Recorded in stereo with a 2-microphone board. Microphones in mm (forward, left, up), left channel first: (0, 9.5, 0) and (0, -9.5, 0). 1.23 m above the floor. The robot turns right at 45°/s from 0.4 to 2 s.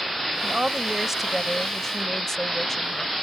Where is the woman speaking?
50° right; by 3.1 s 20° left.